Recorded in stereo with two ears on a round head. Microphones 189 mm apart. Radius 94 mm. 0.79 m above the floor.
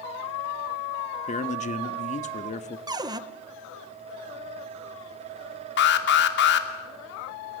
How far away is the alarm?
About 2.5 m.